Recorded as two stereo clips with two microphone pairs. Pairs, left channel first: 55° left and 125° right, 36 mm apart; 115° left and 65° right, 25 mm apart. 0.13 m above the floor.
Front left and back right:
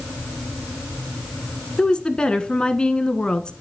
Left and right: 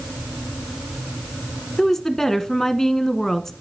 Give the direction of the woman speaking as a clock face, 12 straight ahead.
10 o'clock.